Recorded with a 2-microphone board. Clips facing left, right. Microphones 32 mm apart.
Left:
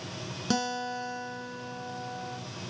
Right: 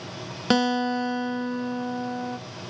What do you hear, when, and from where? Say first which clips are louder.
0.5 s a guitar: right 9 dB; 45° right (ahead or behind), 0.5 m